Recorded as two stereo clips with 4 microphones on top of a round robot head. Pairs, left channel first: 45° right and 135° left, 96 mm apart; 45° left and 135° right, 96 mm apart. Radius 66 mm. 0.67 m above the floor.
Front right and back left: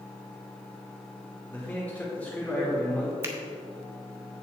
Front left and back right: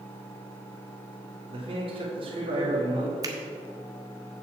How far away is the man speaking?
About 1.6 m.